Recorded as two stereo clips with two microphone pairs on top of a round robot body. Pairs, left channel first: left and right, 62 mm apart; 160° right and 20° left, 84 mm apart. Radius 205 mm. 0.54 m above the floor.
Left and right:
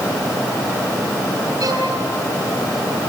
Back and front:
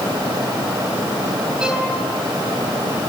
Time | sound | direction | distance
1.6 | a violin | 60° right | 6 m